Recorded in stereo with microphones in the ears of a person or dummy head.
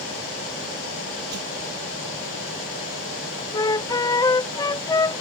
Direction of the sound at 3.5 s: 15° left (ahead or behind).